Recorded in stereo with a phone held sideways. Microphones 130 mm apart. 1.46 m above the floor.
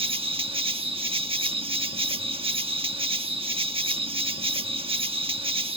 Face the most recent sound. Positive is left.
turn(degrees=-45)  # may be behind; listen again after turning